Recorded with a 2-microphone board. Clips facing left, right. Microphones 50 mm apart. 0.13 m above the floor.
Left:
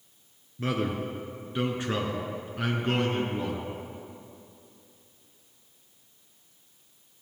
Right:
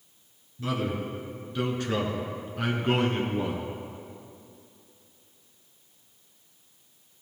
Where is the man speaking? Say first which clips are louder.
Left 1 dB; 45° left (ahead or behind), 1.6 m; by 3.6 s 20° right (ahead or behind), 1.3 m.